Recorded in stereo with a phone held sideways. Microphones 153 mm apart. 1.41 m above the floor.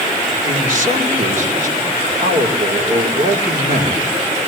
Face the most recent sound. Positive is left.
turn(degrees=-65)  # may be behind; listen again after turning